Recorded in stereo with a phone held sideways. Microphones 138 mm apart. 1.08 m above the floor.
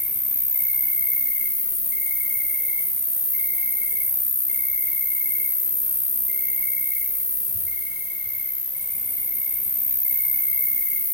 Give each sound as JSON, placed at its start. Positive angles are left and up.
{"t": 0.0, "sound": "an insect", "side_deg": 55, "distance_m": 1.2}